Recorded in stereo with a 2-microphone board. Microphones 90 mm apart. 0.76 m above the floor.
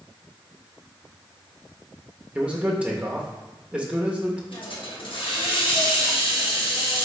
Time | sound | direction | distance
2.4 | a man speaking | 15° right (ahead or behind) | 0.8 m
4.5 | a hiss | 70° left (ahead or behind) | 0.9 m